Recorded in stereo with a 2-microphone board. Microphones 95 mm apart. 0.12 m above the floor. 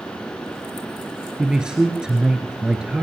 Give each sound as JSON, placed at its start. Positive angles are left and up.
{"t": 1.4, "sound": "a man speaking", "side_deg": -10, "distance_m": 1.6}